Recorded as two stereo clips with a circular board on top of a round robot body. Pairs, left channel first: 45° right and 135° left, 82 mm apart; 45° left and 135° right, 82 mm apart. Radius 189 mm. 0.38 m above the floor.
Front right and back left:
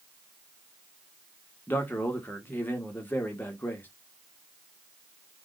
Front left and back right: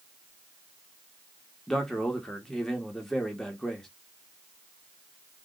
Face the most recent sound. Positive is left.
turn(degrees=-30)